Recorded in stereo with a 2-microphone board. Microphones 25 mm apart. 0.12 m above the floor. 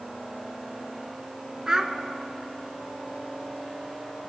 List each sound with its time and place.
1.7 s a child speaking: 25° right (ahead or behind), 0.7 m